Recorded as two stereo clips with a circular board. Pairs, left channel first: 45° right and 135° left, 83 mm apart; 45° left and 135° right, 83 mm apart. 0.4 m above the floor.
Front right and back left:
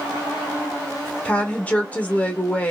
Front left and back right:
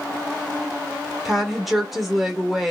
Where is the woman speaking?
50° right, 0.8 m.